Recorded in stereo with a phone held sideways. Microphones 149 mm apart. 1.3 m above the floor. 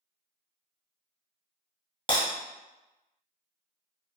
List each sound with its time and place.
2.1 s breaking glass: 35° left (ahead or behind), 1.8 m